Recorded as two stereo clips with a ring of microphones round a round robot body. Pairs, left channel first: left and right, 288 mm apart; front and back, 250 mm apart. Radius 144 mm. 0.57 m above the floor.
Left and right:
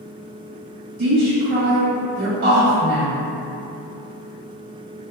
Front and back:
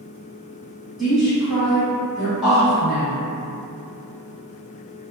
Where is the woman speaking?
90° right, 0.8 m.